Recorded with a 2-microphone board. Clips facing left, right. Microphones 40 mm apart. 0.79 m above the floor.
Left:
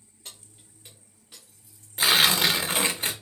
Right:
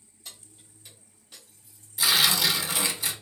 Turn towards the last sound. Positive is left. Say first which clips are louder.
# left 2 dB
turn(degrees=40)  # may be behind; listen again after turning